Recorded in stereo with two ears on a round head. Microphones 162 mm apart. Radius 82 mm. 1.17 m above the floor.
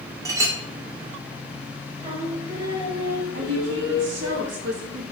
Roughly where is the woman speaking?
Right.